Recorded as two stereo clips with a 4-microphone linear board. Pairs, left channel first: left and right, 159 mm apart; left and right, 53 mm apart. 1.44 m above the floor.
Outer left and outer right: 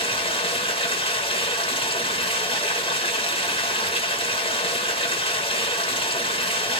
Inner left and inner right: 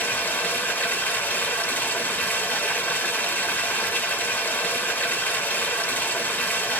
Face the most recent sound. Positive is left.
turn(degrees=35)  # may be behind; listen again after turning